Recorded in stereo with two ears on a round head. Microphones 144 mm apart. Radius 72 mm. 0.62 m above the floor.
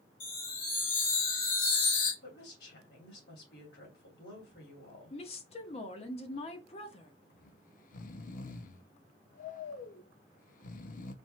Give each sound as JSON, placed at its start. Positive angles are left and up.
{"t": 0.2, "sound": "a chime", "side_deg": 70, "distance_m": 3.5}
{"t": 2.2, "sound": "a woman speaking", "side_deg": 70, "distance_m": 2.5}
{"t": 5.1, "sound": "a woman speaking", "side_deg": 40, "distance_m": 1.0}
{"t": 7.3, "sound": "snoring", "side_deg": 55, "distance_m": 0.6}